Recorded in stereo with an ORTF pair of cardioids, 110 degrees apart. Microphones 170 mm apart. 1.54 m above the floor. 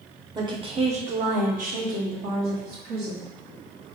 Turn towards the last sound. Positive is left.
turn(degrees=-75)